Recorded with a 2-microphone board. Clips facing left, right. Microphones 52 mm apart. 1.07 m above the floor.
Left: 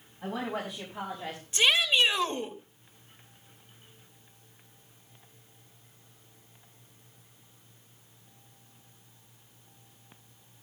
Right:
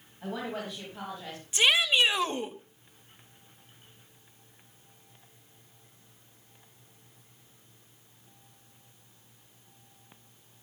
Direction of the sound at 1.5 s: 10° right (ahead or behind).